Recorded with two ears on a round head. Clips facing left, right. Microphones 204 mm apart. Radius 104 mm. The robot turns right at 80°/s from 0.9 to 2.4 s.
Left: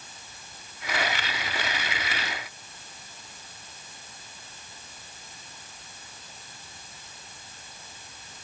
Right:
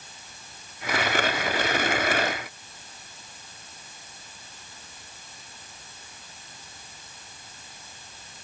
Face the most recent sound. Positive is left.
No sound to turn to.